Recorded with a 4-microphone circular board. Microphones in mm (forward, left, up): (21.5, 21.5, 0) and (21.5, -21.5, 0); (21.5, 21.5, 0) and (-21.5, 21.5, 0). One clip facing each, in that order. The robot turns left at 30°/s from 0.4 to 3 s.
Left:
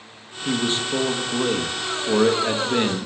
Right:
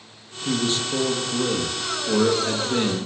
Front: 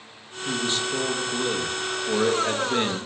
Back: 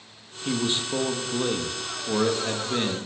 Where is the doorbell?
I don't hear a doorbell.